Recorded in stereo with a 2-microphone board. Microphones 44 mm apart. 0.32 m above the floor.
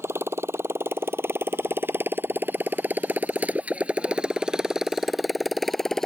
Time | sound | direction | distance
0.0 | a motorcycle | 75° right (ahead or behind) | ?